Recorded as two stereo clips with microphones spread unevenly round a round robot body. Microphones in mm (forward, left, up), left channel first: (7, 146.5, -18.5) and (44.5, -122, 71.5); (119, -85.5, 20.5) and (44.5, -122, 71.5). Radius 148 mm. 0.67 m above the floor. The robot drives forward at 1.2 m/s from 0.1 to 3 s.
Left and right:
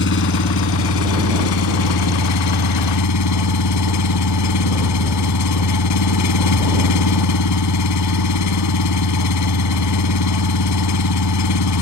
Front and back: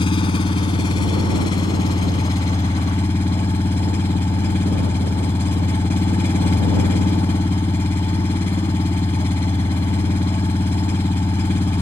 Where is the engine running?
55° left; by 11.8 s 95° left.